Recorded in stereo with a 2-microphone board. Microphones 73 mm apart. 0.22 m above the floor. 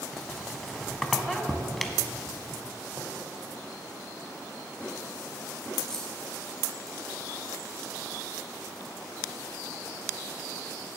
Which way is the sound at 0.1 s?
Centre (ahead or behind).